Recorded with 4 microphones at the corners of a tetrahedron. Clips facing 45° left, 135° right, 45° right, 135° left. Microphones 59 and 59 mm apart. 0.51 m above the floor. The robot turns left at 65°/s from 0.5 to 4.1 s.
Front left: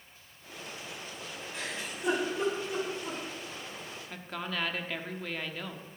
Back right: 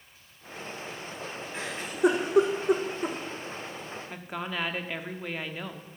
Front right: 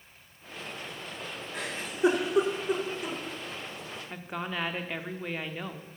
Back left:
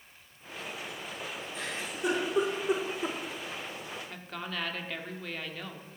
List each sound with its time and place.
1.5 s a giggle: 75° right, 4.5 m; by 3.2 s straight behind, 4.5 m
4.1 s a woman speaking: 85° right, 1.0 m